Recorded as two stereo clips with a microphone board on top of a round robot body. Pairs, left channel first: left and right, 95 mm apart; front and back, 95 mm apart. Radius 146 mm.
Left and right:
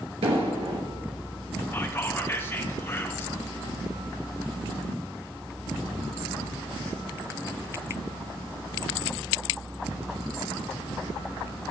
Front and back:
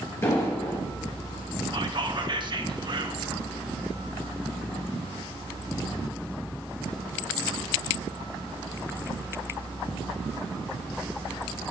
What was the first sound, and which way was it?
An explosion, 65° right.